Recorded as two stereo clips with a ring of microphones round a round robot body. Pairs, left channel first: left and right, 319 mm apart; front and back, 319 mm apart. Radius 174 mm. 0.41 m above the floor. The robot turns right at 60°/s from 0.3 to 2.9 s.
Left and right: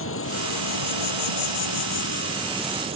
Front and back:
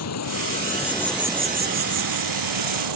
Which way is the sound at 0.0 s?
40° left.